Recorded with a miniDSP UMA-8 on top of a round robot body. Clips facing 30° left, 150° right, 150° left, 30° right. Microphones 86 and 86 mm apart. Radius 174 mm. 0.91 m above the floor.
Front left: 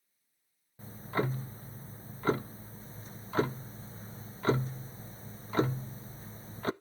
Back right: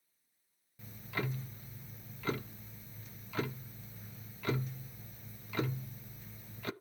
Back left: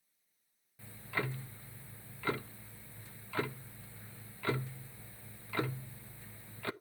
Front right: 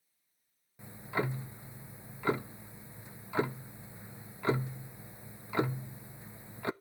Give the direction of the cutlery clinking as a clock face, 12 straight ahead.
No cutlery clinking in this recording.